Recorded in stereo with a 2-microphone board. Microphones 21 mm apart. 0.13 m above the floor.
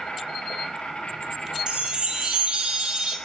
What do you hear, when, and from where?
0.0 s an insect: 55° left (ahead or behind), 2.5 m
1.7 s a chime: 40° right (ahead or behind), 1.0 m